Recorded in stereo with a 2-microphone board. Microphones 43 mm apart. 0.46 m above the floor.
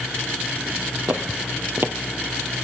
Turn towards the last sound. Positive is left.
turn(degrees=-55)  # may be behind; listen again after turning